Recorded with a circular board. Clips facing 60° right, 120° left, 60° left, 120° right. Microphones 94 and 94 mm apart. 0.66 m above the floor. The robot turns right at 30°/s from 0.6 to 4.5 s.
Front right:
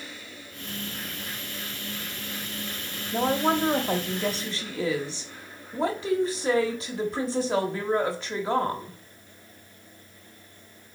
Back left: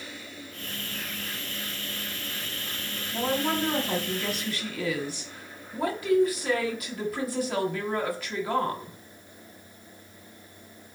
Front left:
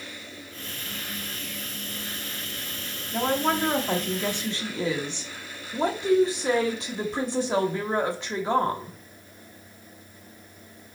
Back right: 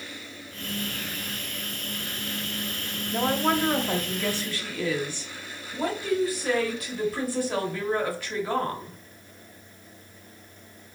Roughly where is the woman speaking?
Ahead right.